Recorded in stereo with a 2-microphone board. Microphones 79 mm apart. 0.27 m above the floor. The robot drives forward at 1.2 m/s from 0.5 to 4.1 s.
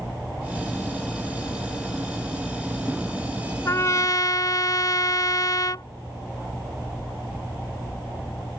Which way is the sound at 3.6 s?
40° left (ahead or behind).